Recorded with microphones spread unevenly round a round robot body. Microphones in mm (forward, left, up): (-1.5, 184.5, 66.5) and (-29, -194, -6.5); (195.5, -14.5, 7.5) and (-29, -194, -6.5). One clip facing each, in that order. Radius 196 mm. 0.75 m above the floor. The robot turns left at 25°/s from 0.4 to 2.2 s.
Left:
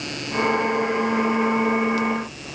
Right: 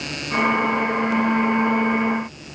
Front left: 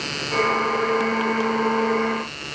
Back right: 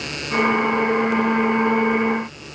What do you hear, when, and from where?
Only background noise.